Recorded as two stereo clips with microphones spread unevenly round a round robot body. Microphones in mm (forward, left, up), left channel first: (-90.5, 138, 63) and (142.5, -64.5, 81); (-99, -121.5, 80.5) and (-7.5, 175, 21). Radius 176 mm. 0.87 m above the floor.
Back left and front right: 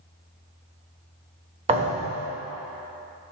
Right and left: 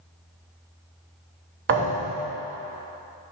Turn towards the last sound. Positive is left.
turn(degrees=15)